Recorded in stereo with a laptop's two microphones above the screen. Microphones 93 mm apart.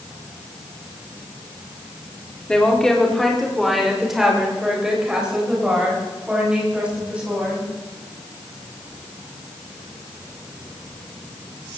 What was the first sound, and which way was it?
A woman speaking, 10° left (ahead or behind).